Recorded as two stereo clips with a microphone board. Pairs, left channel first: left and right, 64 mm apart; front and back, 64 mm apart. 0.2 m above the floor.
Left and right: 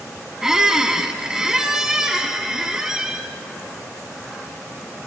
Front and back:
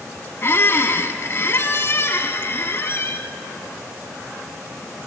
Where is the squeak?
15° right, 0.7 m.